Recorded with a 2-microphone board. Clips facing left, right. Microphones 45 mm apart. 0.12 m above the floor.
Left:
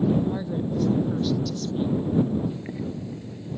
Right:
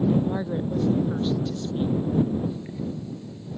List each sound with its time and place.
0.2 s a woman speaking: 25° right (ahead or behind)
2.5 s boiling: 35° left (ahead or behind)